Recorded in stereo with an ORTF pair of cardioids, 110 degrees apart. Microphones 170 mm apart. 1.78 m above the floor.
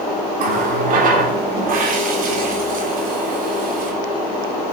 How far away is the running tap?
About 3.5 m.